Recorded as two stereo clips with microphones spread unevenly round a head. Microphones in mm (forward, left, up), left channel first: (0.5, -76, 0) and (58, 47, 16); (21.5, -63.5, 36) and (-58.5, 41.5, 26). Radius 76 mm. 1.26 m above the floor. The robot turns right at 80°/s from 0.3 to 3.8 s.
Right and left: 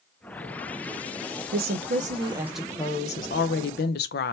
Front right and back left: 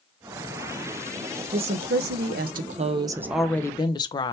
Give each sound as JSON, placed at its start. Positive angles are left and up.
{"t": 1.5, "sound": "a woman speaking", "azimuth_deg": 65, "distance_m": 0.5}